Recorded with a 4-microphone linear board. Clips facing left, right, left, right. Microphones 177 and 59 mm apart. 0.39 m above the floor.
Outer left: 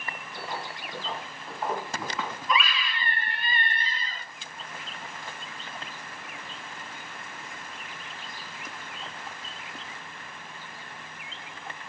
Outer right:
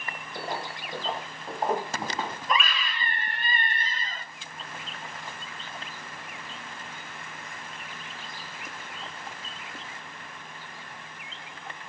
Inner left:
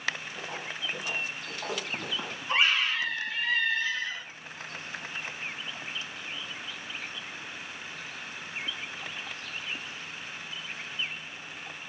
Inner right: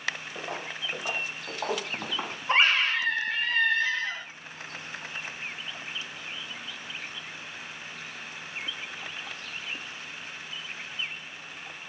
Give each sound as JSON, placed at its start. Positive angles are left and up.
{"t": 0.3, "sound": "footsteps", "side_deg": -50, "distance_m": 4.5}
{"t": 2.5, "sound": "a scream", "side_deg": -50, "distance_m": 2.5}